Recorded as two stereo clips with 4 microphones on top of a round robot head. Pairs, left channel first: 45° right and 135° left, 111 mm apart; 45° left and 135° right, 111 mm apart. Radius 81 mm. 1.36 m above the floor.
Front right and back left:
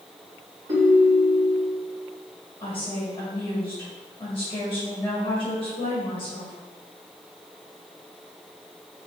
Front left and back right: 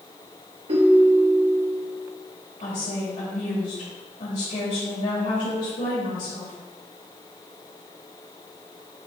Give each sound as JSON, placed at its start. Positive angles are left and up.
{"t": 0.7, "sound": "a ringtone", "azimuth_deg": -170, "distance_m": 2.5}
{"t": 2.6, "sound": "a woman speaking", "azimuth_deg": 25, "distance_m": 2.5}